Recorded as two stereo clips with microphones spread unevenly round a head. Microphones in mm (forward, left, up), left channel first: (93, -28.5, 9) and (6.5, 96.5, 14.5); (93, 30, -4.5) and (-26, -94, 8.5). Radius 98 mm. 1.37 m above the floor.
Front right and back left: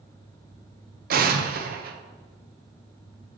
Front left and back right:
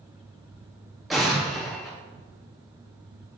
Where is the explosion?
135° left, 0.8 m.